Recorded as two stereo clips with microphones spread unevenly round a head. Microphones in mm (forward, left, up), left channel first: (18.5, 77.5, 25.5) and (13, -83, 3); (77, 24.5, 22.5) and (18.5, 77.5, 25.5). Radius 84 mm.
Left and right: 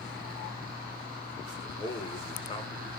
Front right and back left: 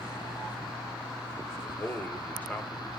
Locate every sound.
1.6 s a man speaking: 30° left, 1.1 m